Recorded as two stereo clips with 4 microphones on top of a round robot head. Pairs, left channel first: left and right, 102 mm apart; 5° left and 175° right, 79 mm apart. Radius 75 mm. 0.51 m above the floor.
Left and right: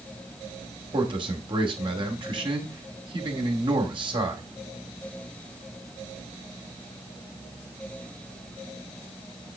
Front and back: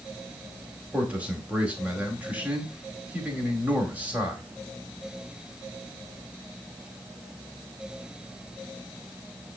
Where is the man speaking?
105° right, 2 m.